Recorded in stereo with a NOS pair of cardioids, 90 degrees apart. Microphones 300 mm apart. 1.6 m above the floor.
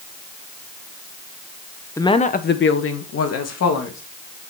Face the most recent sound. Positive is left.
turn(degrees=60)